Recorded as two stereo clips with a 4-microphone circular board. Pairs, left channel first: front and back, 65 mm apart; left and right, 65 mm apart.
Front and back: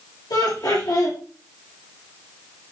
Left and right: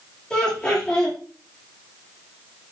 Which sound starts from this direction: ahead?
Laughter, at 0.3 s.